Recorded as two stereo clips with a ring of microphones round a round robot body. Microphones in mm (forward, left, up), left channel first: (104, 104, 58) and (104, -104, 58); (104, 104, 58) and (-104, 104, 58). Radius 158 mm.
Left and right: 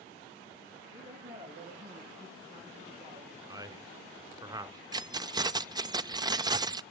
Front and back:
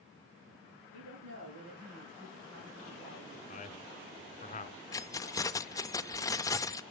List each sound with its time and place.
0.9 s a woman speaking: 145° right, 6.5 m; by 3.4 s 155° right, 6.5 m
3.5 s a man speaking: 30° right, 1.7 m
4.9 s keys jangling: 50° right, 0.5 m